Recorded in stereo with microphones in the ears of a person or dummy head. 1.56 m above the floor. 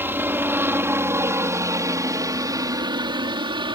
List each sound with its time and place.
0.0 s a helicopter: 10° right (ahead or behind); by 3.8 s 25° right (ahead or behind)